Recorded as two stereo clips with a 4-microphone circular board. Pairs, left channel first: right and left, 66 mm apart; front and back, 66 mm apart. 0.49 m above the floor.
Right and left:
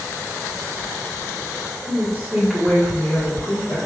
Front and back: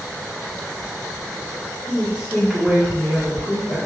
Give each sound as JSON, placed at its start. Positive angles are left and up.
{"t": 1.9, "sound": "a woman speaking", "azimuth_deg": 130, "distance_m": 1.6}